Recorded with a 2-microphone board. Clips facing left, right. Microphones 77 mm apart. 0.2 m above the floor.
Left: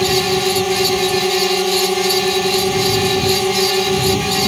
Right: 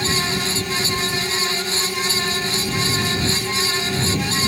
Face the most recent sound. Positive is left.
turn(degrees=75)  # may be behind; listen again after turning